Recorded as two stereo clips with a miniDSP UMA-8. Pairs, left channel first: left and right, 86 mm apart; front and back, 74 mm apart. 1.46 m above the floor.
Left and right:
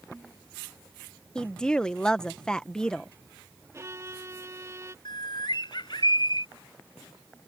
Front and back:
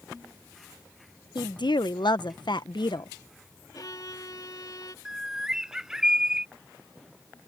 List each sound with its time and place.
1.4 s a woman speaking: 10° left
3.7 s a violin: 35° right
5.0 s a bird: 100° left